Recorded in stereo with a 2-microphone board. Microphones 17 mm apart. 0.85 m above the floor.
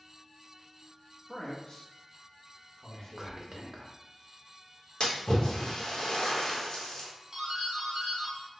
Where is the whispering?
20° right (ahead or behind), 0.6 m.